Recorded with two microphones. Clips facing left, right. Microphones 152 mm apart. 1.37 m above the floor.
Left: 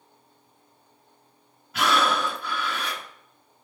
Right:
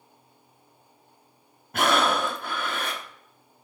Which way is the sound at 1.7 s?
50° right (ahead or behind).